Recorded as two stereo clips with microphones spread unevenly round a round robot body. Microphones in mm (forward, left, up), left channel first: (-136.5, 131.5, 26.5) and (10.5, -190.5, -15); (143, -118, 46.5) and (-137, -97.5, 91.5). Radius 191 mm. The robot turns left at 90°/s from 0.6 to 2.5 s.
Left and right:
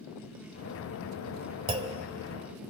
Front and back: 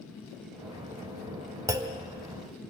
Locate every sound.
1.7 s a clunk: 95° right, 1.3 m; by 2.0 s 125° right, 1.3 m